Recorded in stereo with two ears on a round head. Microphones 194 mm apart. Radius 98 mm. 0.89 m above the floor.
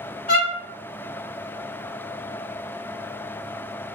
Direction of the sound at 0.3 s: 30° left (ahead or behind).